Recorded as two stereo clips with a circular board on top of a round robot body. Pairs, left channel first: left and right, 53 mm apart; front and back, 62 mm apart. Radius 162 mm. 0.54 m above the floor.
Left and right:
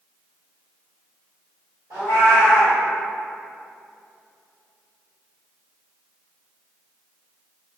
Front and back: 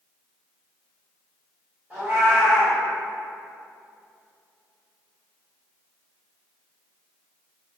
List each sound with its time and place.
1.9 s a cat meowing: 110° right, 1.1 m